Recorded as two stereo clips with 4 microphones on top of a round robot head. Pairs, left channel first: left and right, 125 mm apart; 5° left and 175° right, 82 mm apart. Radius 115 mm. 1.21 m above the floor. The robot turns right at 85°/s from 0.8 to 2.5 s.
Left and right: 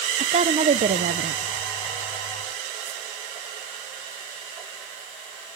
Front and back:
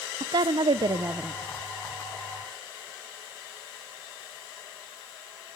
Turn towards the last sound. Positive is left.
turn(degrees=10)